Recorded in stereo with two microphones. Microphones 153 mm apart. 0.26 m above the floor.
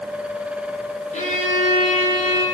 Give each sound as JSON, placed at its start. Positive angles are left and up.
{"t": 1.1, "sound": "a violin", "side_deg": 50, "distance_m": 4.5}